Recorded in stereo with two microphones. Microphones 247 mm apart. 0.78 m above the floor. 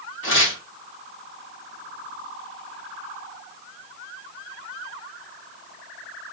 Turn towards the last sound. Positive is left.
turn(degrees=55)  # may be behind; listen again after turning